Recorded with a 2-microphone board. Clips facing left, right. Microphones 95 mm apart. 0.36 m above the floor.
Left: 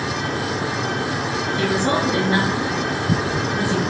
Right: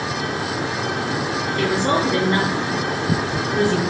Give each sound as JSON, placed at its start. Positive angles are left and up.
{"t": 1.6, "sound": "a woman speaking", "side_deg": 10, "distance_m": 4.5}